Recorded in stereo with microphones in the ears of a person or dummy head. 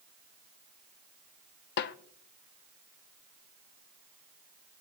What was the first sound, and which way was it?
A snare drum, 50° left (ahead or behind).